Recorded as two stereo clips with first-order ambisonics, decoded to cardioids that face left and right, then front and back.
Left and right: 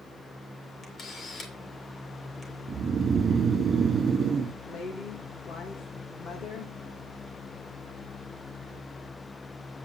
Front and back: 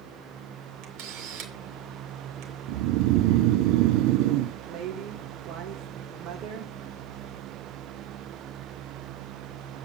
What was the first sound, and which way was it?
A camera shutter, 155° left.